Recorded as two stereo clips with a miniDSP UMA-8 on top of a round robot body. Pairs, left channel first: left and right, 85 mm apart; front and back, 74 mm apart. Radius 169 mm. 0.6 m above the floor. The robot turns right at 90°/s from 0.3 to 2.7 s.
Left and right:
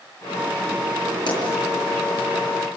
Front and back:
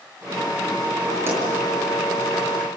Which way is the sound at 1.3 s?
120° left.